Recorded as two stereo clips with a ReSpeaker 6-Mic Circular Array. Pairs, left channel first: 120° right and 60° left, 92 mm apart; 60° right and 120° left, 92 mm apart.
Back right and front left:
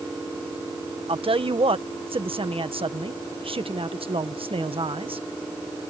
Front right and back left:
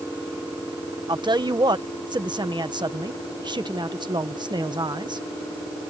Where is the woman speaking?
80° left.